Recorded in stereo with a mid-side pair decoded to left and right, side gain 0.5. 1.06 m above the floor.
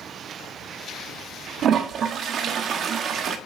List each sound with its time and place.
1.6 s a toilet flushing: 55° right, 1.3 m